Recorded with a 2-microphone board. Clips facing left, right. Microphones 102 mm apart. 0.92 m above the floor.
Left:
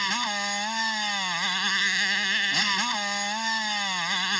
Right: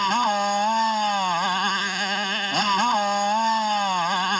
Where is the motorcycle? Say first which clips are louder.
Right 9 dB; 45° right (ahead or behind).